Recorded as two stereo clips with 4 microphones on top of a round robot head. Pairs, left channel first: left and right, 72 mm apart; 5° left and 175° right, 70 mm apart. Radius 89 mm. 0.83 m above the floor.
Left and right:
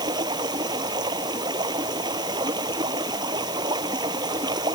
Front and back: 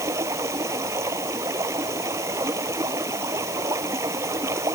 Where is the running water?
120° right.